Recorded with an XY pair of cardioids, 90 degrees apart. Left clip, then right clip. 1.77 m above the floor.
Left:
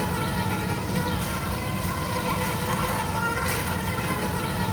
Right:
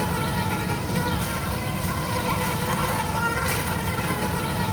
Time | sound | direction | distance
0.0 | an insect | 15° right | 1.2 m